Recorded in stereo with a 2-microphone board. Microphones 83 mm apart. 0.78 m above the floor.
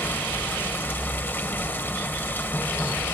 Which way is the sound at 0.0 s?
25° left (ahead or behind).